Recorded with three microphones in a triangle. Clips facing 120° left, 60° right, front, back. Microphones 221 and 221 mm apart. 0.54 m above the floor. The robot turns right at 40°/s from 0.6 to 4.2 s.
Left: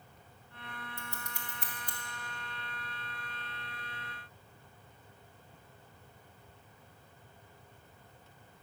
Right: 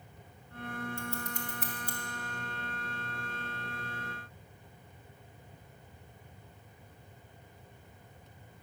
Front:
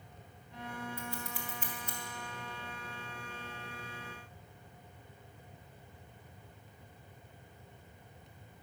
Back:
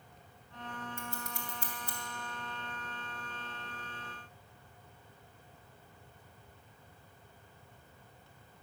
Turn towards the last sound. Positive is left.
turn(degrees=-45)